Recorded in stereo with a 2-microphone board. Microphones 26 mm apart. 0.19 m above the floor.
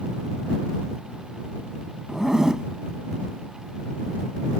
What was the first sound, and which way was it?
A zipper, 25° right (ahead or behind).